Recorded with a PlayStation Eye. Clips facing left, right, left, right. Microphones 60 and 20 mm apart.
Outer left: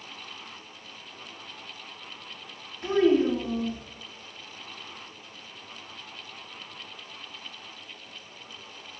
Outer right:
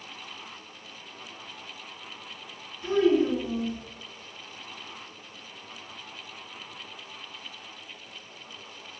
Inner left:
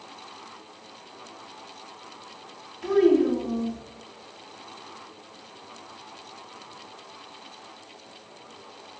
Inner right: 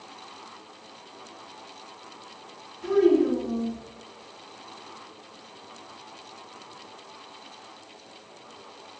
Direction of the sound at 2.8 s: 55° left (ahead or behind).